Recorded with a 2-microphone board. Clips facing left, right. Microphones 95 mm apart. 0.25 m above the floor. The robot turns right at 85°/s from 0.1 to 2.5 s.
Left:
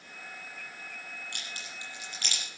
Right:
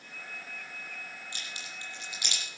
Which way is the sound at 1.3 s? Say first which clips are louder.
Even; 60° left (ahead or behind).